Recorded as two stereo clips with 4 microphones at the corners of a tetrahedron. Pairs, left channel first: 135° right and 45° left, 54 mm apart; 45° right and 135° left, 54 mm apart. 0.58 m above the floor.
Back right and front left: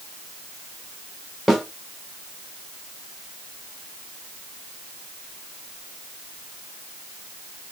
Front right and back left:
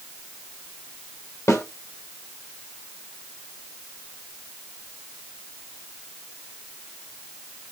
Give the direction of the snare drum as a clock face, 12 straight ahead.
2 o'clock.